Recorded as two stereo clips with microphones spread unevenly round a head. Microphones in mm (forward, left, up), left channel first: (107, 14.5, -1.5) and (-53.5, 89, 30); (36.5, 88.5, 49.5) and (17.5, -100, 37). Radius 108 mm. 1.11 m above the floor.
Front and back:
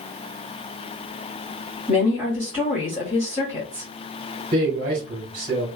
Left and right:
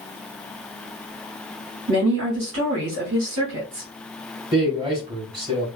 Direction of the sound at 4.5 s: 160° right.